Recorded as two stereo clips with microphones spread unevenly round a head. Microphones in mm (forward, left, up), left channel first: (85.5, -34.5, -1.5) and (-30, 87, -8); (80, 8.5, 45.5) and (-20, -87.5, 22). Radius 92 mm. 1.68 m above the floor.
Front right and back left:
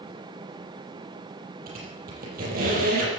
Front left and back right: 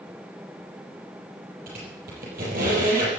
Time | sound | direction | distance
1.7 | a squeak | straight behind | 7 m